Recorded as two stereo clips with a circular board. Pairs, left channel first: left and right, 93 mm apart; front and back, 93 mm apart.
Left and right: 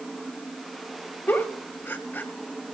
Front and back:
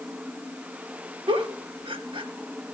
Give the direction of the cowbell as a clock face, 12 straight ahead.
No cowbell in this recording.